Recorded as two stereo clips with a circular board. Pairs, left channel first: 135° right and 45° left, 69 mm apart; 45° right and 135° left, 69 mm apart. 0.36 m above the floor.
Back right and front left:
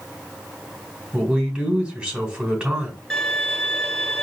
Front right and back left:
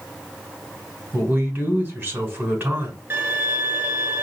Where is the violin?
140° left, 1.0 m.